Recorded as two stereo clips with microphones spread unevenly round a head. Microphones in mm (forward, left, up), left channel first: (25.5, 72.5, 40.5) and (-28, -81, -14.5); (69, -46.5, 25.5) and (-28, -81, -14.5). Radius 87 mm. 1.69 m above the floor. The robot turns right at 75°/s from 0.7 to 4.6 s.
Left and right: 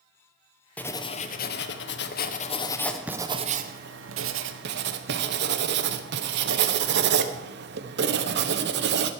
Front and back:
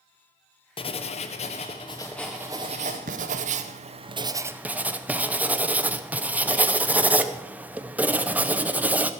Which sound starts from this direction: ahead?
Writing, at 0.8 s.